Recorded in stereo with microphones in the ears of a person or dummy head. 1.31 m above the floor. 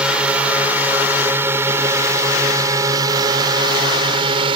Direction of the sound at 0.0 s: 10° right (ahead or behind).